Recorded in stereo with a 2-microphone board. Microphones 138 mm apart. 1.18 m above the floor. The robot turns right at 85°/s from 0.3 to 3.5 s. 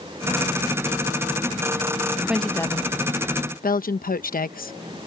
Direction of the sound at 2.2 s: 10° right (ahead or behind).